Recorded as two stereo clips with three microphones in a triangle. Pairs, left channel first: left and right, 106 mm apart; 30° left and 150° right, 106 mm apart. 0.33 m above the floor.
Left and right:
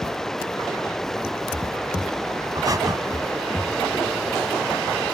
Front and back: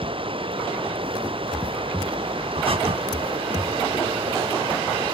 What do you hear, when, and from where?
0.0 s running water: 175° left
2.5 s breathing: 140° right